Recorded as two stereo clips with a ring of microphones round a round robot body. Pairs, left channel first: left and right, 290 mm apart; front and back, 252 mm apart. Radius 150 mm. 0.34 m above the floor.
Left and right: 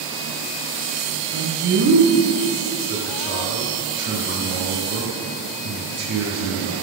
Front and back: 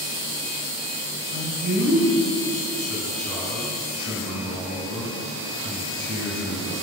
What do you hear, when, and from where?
1.3 s a man speaking: 140° right, 3.5 m